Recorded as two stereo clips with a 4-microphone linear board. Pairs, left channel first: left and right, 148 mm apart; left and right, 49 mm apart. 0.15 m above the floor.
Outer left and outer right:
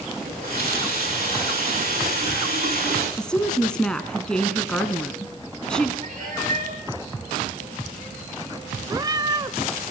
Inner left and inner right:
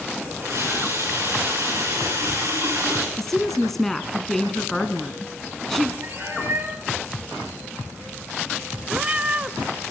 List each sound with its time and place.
0.2 s a running tap: 65° right (ahead or behind), 9.5 m
3.2 s a woman speaking: 5° left (ahead or behind), 1.5 m
6.0 s a cat meowing: 60° right (ahead or behind), 7.5 m
8.9 s a cat meowing: 25° right (ahead or behind), 0.7 m